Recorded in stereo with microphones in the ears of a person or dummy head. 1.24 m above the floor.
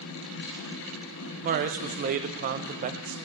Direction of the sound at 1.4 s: 40° right (ahead or behind).